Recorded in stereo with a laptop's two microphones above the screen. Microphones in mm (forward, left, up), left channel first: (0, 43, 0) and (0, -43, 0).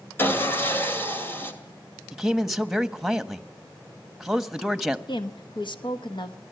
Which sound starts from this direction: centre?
A man speaking, at 2.1 s.